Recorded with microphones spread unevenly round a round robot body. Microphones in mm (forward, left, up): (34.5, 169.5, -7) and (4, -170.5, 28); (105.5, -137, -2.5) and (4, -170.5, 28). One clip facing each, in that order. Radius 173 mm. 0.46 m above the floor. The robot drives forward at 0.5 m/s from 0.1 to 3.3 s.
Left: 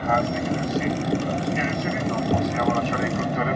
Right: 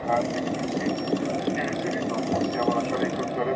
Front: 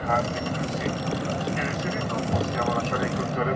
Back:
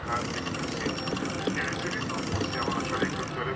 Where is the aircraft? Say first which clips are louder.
Left 1 dB, front 7 dB; 40° left; by 3.6 s 45° left.